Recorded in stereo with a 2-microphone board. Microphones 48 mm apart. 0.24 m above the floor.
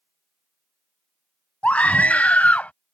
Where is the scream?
25° left (ahead or behind); by 2.7 s 30° left (ahead or behind).